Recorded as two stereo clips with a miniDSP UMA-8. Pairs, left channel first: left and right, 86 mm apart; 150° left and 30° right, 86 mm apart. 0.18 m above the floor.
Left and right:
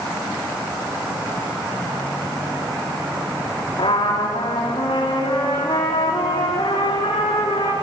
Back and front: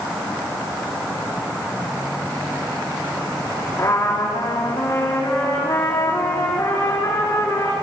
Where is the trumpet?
90° left, 5.5 m.